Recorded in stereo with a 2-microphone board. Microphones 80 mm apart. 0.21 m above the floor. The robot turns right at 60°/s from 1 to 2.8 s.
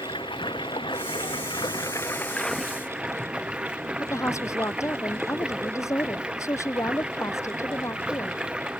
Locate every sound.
0.0 s running water: 85° left; by 8.8 s 170° right
4.0 s a woman speaking: 40° left (ahead or behind)